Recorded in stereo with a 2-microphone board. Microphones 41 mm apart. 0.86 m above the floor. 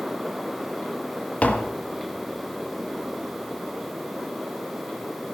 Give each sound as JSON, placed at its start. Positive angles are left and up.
{"t": 1.4, "sound": "tapping", "side_deg": 40, "distance_m": 1.2}